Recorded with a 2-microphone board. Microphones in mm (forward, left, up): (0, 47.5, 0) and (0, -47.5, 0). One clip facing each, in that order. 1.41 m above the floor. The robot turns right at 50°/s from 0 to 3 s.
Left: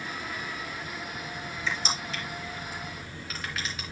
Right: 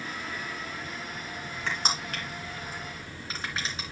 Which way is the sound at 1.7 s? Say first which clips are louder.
Right 1 dB; 55° right (ahead or behind).